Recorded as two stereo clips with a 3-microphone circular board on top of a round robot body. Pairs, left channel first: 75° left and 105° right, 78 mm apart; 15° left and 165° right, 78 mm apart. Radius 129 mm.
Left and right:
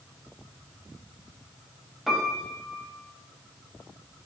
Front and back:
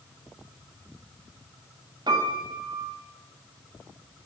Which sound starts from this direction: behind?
A piano, at 2.1 s.